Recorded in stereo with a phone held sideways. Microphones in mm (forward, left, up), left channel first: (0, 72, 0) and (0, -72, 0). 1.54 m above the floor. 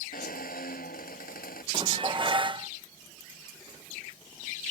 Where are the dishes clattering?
35° right (ahead or behind).